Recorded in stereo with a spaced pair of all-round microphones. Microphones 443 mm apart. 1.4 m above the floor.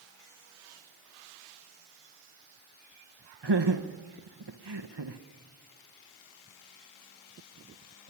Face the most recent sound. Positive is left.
turn(degrees=-65)  # may be behind; listen again after turning